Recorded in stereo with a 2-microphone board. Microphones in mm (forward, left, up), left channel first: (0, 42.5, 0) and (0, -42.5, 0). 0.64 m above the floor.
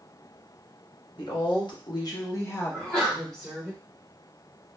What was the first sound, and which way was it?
A woman speaking, 60° left (ahead or behind).